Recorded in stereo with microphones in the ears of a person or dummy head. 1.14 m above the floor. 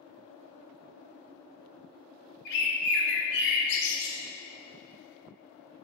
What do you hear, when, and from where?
2.5 s a bird: 65° left (ahead or behind), 0.6 m